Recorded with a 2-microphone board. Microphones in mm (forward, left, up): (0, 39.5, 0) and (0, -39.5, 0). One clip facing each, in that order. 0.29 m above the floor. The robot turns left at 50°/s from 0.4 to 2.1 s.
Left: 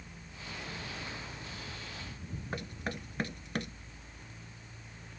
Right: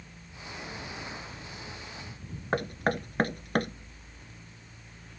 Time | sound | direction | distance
2.5 | knocking | 55° right (ahead or behind) | ?